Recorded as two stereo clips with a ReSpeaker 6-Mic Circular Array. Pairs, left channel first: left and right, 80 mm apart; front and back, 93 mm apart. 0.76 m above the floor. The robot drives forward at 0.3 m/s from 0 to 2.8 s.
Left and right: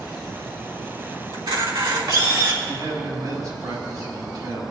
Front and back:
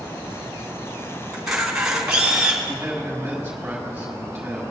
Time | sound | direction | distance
1.3 | a camera shutter | 95° right | 2.5 m
2.7 | a man speaking | 105° right | 3.5 m